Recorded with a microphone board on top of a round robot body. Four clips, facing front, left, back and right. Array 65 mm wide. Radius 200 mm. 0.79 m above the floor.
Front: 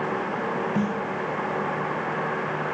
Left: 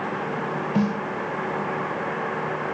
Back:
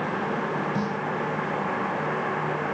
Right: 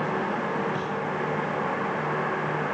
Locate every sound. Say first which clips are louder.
0.8 s a snare drum: left 5 dB, front 2 dB; 70° left